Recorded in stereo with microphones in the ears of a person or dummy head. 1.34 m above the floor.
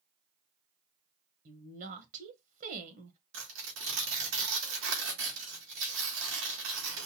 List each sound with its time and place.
1.4 s a woman speaking: 45° right (ahead or behind), 1.3 m
3.3 s tearing paper: 75° right (ahead or behind), 1.9 m